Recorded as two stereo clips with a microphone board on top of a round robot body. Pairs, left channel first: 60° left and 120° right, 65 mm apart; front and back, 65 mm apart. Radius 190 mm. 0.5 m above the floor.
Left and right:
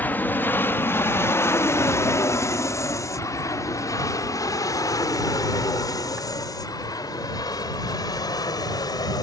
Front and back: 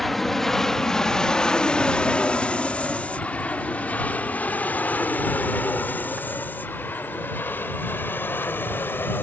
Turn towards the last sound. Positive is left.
turn(degrees=55)